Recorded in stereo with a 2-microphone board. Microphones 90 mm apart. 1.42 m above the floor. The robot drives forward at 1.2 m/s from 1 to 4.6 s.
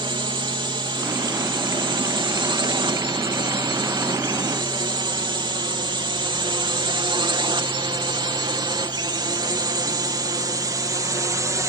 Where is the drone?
65° right (ahead or behind); by 11.7 s 40° right (ahead or behind).